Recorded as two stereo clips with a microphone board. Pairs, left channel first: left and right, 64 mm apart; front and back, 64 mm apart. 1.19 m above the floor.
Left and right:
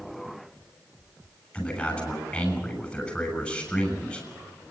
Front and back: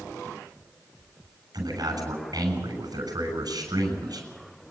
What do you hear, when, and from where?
1.5 s a man speaking: 155° left, 7 m